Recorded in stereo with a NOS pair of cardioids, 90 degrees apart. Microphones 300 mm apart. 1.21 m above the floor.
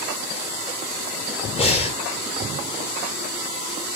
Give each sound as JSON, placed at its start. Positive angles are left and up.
{"t": 1.6, "sound": "breathing", "azimuth_deg": 20, "distance_m": 0.8}